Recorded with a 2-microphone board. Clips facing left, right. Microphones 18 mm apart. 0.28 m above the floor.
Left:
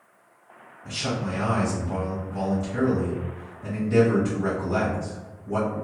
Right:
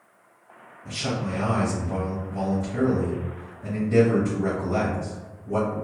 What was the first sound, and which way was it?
A man speaking, 30° left (ahead or behind).